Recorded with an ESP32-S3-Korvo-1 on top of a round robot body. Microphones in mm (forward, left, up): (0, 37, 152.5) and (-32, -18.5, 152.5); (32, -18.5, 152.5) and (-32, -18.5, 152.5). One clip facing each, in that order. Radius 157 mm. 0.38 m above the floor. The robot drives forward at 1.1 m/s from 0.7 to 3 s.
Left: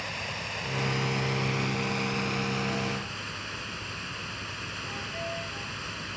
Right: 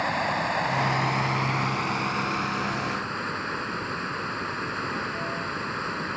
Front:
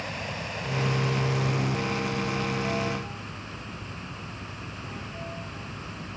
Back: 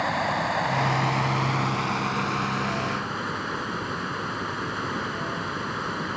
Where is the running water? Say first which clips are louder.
Right 10 dB, back 10 dB; 155° right; by 6.2 s 165° right.